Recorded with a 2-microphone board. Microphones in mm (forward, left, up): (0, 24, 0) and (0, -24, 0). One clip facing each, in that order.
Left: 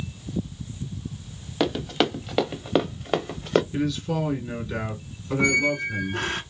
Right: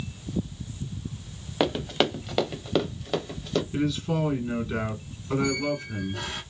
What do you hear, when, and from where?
1.6 s running footsteps: 10° right (ahead or behind), 1.1 m; by 3.6 s 50° left (ahead or behind), 0.9 m
3.7 s a man speaking: 15° right (ahead or behind), 1.4 m
5.4 s a squeak: 55° left (ahead or behind), 0.5 m